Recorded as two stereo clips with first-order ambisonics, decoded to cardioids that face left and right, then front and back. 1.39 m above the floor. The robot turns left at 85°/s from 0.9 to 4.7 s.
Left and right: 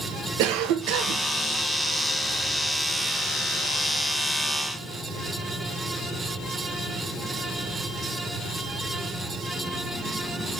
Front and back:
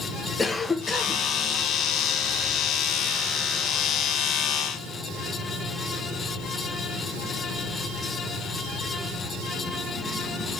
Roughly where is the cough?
Right.